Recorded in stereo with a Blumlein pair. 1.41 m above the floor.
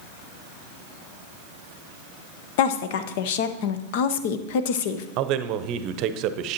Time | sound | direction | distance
2.6 | a woman speaking | 50° left | 0.8 m
5.2 | a man speaking | 40° right | 0.8 m